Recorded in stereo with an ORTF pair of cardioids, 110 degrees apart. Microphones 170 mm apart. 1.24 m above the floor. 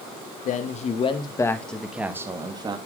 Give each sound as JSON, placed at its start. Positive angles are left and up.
{"t": 0.5, "sound": "a man speaking", "azimuth_deg": 55, "distance_m": 1.8}